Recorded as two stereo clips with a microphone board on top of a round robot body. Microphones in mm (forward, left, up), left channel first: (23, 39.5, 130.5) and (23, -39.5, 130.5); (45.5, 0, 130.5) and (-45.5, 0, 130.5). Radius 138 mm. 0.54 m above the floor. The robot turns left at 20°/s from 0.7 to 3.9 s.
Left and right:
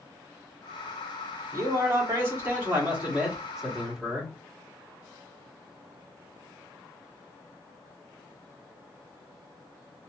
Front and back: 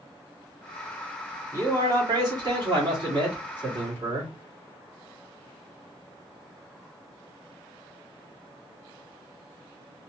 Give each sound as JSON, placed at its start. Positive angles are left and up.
{"t": 1.5, "sound": "a man speaking", "azimuth_deg": -130, "distance_m": 2.0}